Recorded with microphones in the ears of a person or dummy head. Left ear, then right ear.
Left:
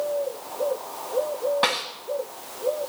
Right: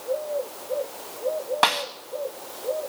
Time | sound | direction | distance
1.6 | a snare drum | 30° right (ahead or behind) | 1.4 m